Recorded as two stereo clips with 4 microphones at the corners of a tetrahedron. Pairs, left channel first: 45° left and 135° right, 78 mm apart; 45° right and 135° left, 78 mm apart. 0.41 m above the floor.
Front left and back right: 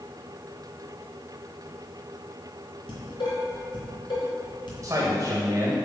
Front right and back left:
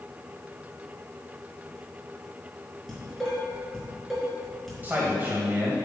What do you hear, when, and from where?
2.9 s dishes clattering: 45° left, 3.5 m
4.8 s a man speaking: 165° right, 1.8 m